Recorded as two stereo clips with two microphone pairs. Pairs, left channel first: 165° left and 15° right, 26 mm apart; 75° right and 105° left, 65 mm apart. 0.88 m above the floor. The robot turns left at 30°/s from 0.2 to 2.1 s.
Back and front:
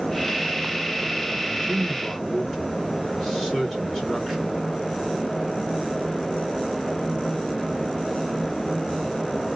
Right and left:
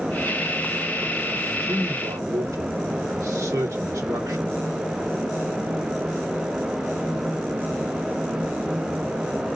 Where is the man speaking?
95° left, 2.5 m; by 4.5 s 75° left, 2.5 m.